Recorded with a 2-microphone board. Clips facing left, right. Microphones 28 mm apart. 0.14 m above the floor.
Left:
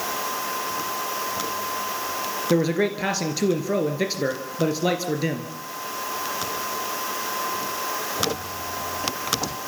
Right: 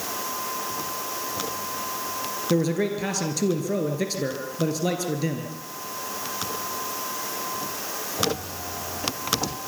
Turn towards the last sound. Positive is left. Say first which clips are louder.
# left 2 dB
turn(degrees=20)  # may be behind; listen again after turning